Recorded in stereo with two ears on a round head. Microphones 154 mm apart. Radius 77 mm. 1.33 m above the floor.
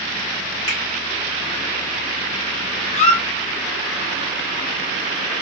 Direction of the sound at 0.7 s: 40° left (ahead or behind).